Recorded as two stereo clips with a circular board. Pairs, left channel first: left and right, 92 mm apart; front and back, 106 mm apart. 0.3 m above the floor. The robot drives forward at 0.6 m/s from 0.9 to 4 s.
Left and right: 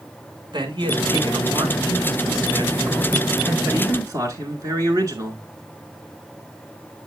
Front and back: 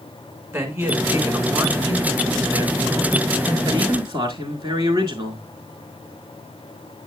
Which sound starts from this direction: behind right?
A man speaking, at 0.5 s.